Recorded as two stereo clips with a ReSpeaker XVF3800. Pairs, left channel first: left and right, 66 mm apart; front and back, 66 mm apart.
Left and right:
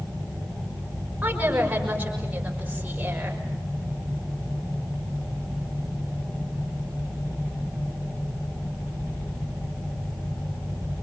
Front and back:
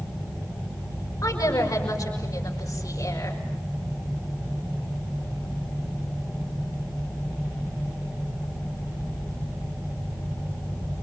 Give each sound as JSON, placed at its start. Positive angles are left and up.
{"t": 1.2, "sound": "a woman speaking", "azimuth_deg": -25, "distance_m": 6.0}